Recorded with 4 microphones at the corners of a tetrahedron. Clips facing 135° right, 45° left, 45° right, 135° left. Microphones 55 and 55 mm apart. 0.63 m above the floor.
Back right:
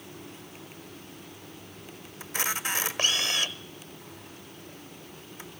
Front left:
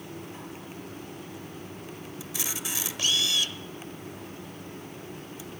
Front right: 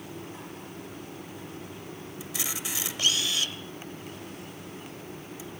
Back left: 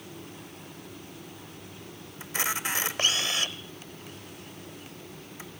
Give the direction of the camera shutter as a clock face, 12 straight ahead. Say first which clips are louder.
Back right 7 dB, back left 7 dB; 6 o'clock.